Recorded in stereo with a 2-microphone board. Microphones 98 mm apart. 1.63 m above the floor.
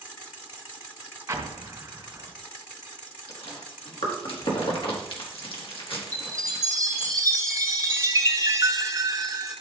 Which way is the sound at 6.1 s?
30° right (ahead or behind).